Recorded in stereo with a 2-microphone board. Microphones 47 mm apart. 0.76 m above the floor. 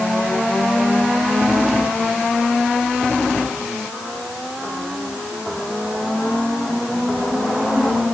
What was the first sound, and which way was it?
Only background noise.